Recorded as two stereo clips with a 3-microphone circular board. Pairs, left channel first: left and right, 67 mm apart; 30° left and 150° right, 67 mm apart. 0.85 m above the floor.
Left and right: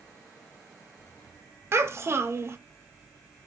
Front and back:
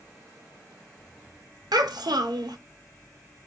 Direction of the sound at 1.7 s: 140° right.